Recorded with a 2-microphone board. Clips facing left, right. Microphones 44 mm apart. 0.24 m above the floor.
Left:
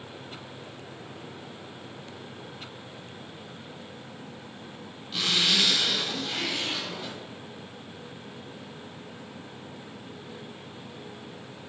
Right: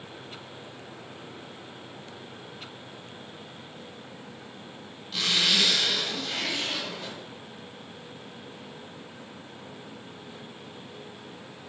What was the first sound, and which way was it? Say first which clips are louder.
A zipper: even; 5° left (ahead or behind).